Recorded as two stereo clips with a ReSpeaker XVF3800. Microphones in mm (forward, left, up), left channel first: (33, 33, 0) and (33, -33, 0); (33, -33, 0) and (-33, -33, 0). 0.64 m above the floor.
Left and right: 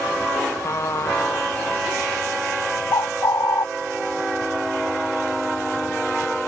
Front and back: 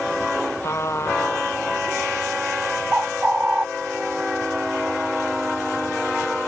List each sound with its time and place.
0.6 s a trumpet: 50° left
2.9 s a bird: 105° left